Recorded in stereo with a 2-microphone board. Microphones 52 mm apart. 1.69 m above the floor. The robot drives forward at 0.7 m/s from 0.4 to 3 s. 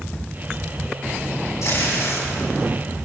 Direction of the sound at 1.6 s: 80° left.